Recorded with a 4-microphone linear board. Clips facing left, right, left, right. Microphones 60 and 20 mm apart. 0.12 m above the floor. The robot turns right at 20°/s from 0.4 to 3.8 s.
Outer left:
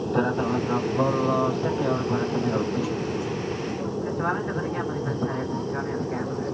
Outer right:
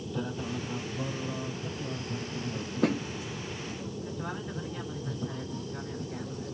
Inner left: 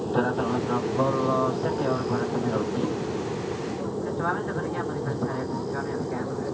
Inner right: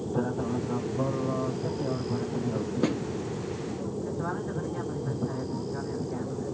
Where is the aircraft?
55° left (ahead or behind); by 6.5 s 45° left (ahead or behind).